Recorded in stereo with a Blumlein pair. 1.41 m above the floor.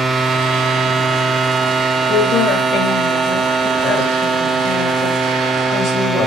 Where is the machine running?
5° right, 0.8 m.